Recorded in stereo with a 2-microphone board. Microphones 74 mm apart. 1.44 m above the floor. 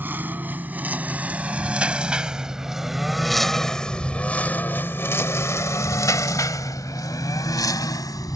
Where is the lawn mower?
30° right (ahead or behind); by 8.4 s 60° left (ahead or behind).